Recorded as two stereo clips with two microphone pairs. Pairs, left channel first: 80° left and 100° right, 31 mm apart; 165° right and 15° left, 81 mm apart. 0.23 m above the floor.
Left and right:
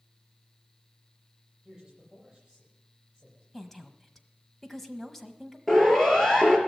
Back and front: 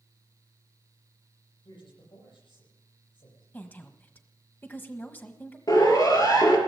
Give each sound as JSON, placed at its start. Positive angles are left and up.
{"t": 1.6, "sound": "a man speaking", "azimuth_deg": -170, "distance_m": 8.5}
{"t": 3.5, "sound": "a woman speaking", "azimuth_deg": 155, "distance_m": 1.2}
{"t": 5.7, "sound": "a siren", "azimuth_deg": 160, "distance_m": 3.5}